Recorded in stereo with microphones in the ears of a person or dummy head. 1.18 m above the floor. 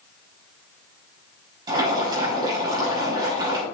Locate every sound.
1.7 s boiling: 25° right (ahead or behind), 6 m